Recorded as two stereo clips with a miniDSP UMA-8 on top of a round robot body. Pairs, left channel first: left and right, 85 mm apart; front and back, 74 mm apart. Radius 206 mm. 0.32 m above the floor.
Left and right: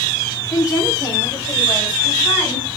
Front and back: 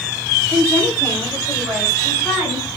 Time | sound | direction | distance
0.5 | a woman speaking | 130° left | 1.9 m